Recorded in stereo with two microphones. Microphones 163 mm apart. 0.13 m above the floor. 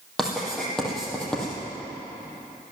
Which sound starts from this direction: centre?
Writing, at 0.2 s.